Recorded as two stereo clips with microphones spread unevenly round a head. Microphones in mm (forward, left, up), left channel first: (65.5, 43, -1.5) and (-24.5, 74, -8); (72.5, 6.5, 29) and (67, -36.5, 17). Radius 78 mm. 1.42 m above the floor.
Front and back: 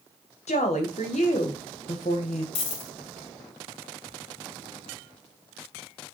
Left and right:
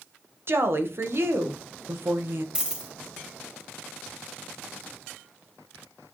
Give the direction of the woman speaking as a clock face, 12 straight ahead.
2 o'clock.